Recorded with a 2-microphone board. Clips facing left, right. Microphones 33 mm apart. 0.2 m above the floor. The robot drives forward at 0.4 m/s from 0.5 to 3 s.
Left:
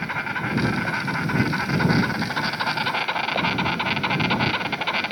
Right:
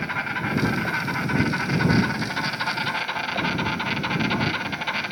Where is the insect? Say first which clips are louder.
Even; 10° left (ahead or behind), 1.5 m; by 5.1 s 25° left (ahead or behind), 0.5 m.